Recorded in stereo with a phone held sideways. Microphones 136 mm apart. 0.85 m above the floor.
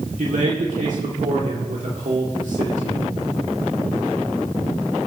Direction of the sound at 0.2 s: 65° right (ahead or behind).